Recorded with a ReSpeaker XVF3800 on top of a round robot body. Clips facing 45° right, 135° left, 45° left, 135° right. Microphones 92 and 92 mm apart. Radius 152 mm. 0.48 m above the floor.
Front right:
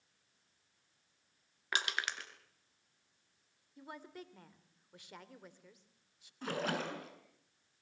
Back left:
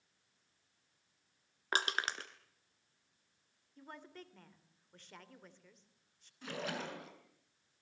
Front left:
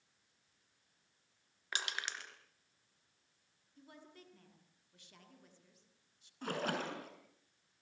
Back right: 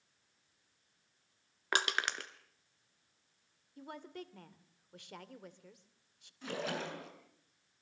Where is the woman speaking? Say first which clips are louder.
Front right 3 dB, back right 11 dB; 125° right, 3 m.